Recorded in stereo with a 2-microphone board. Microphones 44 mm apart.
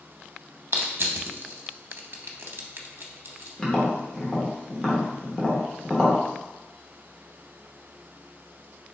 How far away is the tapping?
About 1.1 m.